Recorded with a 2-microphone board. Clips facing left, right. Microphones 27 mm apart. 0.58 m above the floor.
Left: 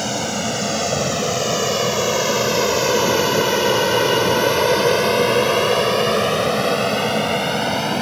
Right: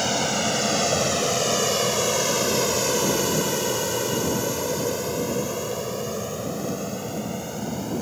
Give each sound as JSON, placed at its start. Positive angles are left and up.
{"t": 0.0, "sound": "an aircraft", "side_deg": 0}